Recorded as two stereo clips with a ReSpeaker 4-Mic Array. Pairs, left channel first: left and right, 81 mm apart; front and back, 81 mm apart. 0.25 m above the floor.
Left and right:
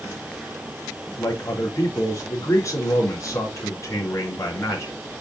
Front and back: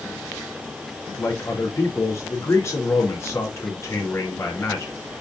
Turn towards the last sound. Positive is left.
turn(degrees=50)